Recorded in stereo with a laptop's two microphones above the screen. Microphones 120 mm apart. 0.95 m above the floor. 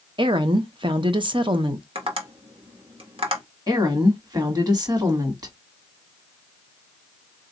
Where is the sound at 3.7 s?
35° right (ahead or behind), 1.2 m.